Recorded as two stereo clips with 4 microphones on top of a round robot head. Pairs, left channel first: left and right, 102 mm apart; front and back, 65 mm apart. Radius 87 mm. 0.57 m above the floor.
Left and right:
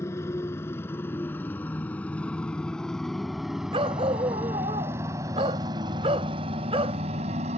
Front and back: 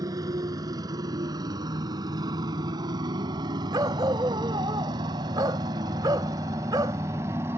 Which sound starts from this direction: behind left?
A motorcycle, at 0.0 s.